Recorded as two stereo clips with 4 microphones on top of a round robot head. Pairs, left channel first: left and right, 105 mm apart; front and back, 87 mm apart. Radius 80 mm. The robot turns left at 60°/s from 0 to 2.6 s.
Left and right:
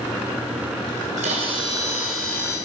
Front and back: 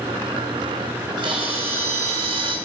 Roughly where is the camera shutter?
Right.